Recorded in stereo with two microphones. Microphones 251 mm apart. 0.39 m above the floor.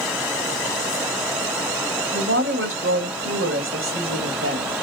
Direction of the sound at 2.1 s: 60° right (ahead or behind).